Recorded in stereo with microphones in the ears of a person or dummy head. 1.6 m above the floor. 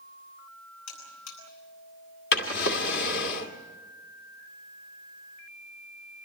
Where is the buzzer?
85° left, 10 m.